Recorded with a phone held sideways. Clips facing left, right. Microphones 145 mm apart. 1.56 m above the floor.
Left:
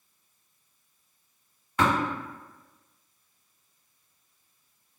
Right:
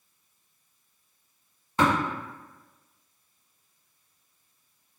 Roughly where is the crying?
I don't hear crying.